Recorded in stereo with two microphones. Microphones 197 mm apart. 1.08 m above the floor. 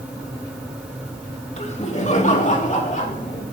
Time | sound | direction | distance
1.6 | laughter | 35° left (ahead or behind) | 1.6 m